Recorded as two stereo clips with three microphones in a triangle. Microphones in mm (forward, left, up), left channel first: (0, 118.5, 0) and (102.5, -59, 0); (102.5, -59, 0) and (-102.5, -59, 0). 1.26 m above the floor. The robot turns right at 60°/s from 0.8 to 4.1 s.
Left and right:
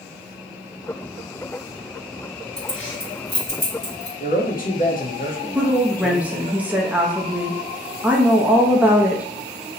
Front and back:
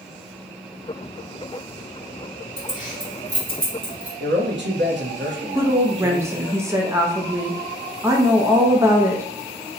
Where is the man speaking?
160° left, 0.8 m.